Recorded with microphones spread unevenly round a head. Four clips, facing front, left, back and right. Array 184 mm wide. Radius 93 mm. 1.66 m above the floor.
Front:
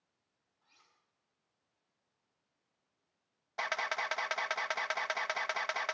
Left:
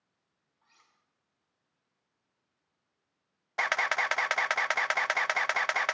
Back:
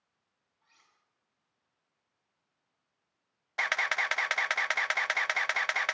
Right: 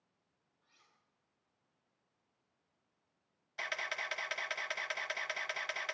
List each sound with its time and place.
0.6 s cutlery clinking: 90° left, 8.5 m
3.6 s a camera shutter: 85° left, 0.8 m